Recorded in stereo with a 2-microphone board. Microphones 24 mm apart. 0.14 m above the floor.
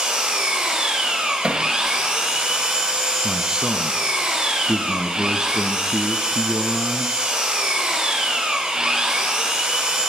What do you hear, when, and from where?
0.0 s an engine running: 30° right (ahead or behind), 8 m
1.4 s hammering: 45° right (ahead or behind), 4 m
3.2 s a man speaking: 25° right (ahead or behind), 2 m